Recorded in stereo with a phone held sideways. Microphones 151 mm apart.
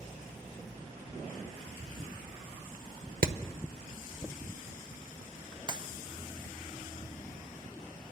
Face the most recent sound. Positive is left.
turn(degrees=-30)  # may be behind; listen again after turning